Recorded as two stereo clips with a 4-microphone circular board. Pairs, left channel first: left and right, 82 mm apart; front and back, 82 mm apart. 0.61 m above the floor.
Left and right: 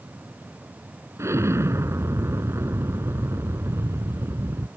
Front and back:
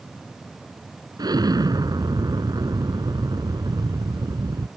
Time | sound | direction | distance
1.2 | an explosion | 145° right | ?